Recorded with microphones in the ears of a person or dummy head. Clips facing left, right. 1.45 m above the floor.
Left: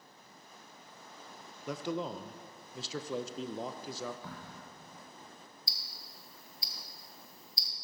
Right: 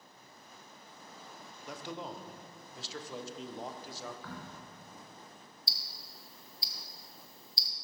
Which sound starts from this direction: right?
Ticking, at 5.7 s.